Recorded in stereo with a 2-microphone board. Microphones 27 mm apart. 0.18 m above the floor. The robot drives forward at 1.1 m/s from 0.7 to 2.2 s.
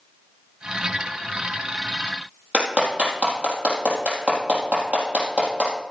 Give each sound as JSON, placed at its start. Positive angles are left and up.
{"t": 2.5, "sound": "a clap", "side_deg": -55, "distance_m": 4.0}